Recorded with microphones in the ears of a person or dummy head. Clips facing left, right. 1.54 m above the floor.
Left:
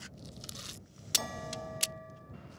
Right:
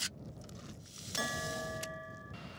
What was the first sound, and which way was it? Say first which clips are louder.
A bell: right 1 dB; 15° right (ahead or behind).